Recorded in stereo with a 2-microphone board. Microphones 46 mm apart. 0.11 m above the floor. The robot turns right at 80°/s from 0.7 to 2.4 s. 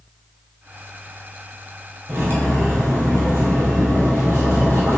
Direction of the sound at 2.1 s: 65° right (ahead or behind).